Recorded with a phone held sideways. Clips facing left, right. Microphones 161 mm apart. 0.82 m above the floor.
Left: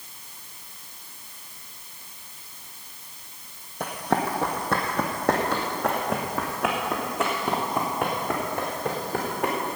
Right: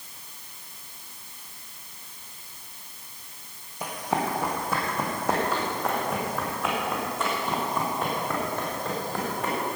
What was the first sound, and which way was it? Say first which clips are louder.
Running footsteps: left 2 dB; 70° left (ahead or behind).